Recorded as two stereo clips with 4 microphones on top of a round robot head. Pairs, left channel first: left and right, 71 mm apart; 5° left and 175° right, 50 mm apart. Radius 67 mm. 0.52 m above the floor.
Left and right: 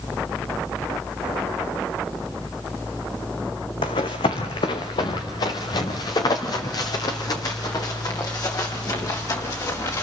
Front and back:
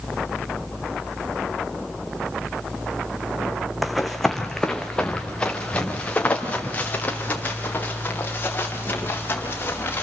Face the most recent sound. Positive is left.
turn(degrees=50)